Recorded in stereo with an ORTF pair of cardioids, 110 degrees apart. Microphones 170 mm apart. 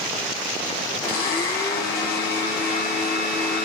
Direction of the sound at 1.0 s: 65° left.